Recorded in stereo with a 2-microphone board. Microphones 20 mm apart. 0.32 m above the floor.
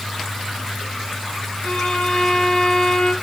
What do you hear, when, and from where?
1.6 s a violin: 60° left (ahead or behind), 2 m